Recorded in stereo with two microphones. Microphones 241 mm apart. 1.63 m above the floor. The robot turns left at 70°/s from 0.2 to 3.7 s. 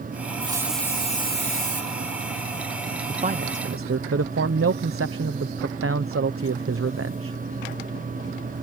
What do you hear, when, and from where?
0.4 s a hiss: 155° right; by 1.8 s 105° left
3.1 s a man speaking: 20° right; by 7.4 s 60° right